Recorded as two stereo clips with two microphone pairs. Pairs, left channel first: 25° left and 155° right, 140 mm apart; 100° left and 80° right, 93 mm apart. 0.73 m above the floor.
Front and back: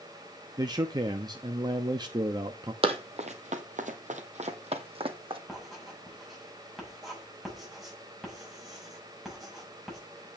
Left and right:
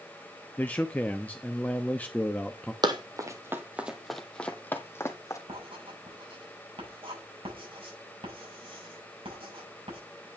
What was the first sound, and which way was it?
A man speaking, 165° left.